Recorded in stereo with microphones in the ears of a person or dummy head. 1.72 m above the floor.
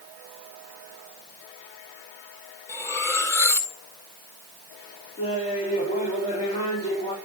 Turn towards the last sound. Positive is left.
turn(degrees=30)  # may be behind; listen again after turning